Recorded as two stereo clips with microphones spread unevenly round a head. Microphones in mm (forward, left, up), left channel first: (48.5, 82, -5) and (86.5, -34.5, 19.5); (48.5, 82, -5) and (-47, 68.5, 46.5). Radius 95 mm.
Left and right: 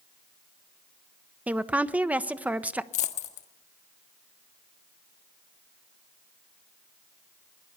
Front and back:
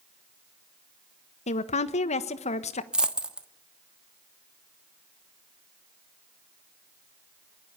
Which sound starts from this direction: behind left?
A dropped coin, at 2.9 s.